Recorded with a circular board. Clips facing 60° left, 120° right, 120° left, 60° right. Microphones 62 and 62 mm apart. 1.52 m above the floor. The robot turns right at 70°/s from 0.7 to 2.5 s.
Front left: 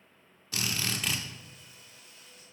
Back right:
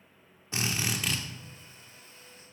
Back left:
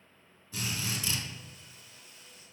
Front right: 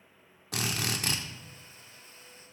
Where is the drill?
55° right, 0.9 m; by 1.2 s 20° right, 0.9 m.